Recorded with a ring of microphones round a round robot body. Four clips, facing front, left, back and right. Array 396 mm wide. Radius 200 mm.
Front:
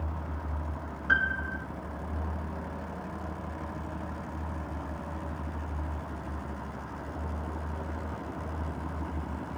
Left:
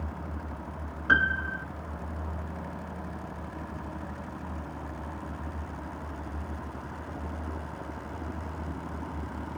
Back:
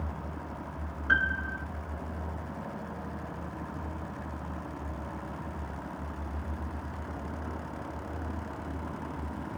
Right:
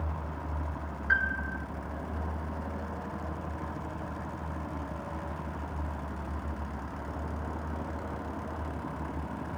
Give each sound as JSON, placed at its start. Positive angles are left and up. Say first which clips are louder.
{"t": 1.1, "sound": "a piano", "louder": "left 5 dB, even", "azimuth_deg": 90}